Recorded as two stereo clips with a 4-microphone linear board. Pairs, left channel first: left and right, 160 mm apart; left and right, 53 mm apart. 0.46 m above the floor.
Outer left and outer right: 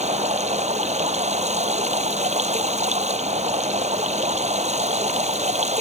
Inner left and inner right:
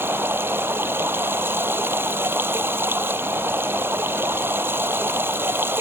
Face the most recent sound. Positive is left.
turn(degrees=-45)  # may be behind; listen again after turning